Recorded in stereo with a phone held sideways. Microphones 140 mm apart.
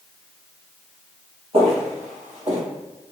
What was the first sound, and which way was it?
Footsteps, 45° right (ahead or behind).